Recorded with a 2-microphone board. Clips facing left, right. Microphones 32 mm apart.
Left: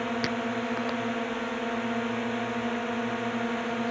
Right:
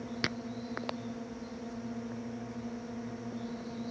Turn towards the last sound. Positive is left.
turn(degrees=75)  # may be behind; listen again after turning